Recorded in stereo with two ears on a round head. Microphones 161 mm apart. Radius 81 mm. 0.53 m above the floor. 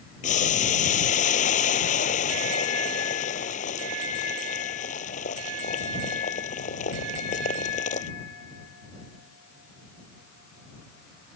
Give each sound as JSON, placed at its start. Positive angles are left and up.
{"t": 0.2, "sound": "boiling", "side_deg": 40}